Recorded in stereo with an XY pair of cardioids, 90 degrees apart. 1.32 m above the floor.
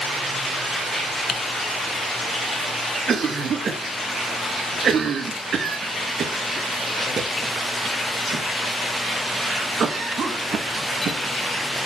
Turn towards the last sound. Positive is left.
turn(degrees=-60)